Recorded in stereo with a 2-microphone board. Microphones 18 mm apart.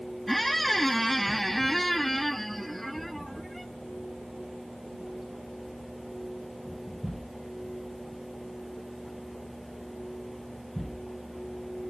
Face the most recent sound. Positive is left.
turn(degrees=10)  # may be behind; listen again after turning